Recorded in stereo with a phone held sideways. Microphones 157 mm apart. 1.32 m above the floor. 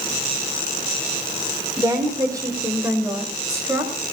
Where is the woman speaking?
20° right (ahead or behind), 4.5 m.